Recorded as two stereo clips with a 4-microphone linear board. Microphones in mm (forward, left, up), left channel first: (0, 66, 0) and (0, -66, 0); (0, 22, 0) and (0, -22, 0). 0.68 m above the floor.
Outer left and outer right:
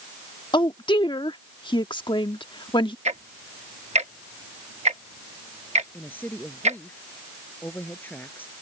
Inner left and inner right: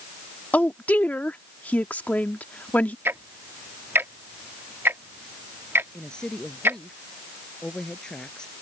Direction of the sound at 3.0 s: 55° right (ahead or behind).